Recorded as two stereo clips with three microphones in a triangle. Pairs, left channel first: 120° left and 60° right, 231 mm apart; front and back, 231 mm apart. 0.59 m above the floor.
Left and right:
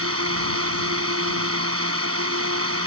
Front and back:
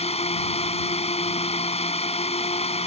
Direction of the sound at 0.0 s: 60° right.